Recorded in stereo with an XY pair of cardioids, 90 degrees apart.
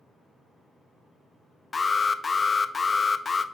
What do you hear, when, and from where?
1.7 s an alarm: 35° left, 0.5 m